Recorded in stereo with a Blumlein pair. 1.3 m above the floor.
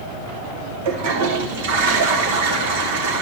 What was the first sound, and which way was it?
A toilet flushing, 50° right.